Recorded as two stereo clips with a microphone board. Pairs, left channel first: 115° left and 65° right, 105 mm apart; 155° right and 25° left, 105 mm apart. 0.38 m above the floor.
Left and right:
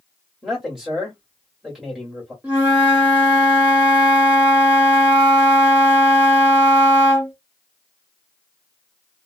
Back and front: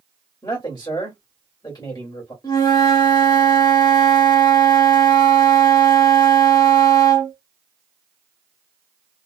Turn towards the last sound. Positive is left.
turn(degrees=-140)